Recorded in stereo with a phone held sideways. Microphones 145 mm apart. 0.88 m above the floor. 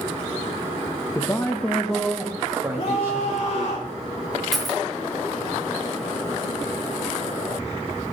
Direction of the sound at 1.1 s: 25° left (ahead or behind).